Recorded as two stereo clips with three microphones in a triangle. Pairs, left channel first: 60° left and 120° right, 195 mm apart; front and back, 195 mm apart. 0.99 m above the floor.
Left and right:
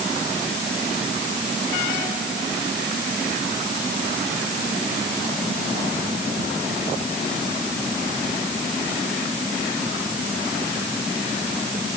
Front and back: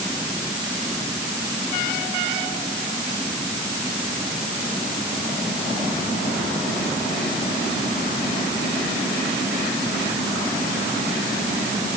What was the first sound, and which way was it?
Only background noise.